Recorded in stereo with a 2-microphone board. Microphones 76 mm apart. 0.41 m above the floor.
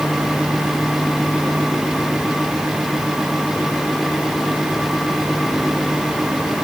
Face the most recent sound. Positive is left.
No sound to turn to.